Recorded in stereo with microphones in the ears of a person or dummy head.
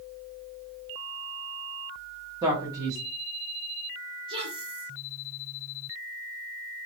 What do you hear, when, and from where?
2.4 s a man speaking: 20° right (ahead or behind), 1.2 m
4.3 s a woman speaking: 25° right (ahead or behind), 1.1 m